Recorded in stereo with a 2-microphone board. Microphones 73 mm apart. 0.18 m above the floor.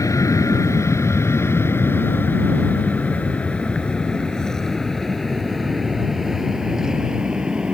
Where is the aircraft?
50° left (ahead or behind); by 7.7 s 10° right (ahead or behind).